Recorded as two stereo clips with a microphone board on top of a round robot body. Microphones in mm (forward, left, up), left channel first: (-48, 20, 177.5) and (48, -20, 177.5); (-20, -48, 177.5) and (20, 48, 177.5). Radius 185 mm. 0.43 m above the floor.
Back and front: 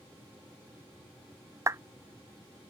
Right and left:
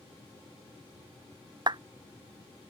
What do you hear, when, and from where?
1.7 s a clap: 35° left